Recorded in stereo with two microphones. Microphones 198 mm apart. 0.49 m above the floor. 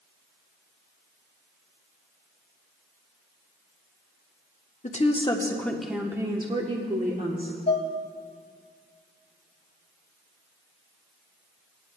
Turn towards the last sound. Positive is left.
turn(degrees=55)  # may be behind; listen again after turning